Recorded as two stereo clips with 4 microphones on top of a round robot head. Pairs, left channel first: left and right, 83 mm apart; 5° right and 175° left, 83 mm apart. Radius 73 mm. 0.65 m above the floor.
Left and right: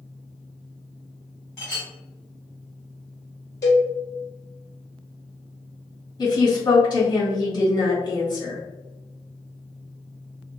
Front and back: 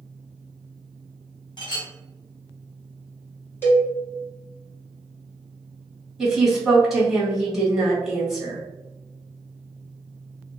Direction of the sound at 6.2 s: 90° left.